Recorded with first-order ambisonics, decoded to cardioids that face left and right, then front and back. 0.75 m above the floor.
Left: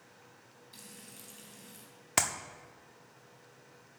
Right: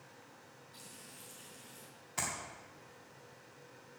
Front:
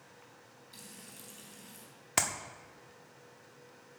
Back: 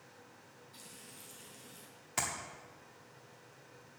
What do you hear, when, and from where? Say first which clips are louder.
0.7 s frying: left 2 dB, front 3 dB; 50° left, 3.5 m
2.2 s a clap: left 8 dB, front 5 dB; 60° left, 0.9 m